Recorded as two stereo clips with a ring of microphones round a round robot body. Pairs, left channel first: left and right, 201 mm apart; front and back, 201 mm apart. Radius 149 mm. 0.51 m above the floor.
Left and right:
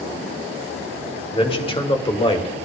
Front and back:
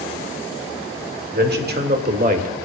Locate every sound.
1.3 s a man speaking: 150° left, 2.5 m; by 2.5 s 145° left, 1.5 m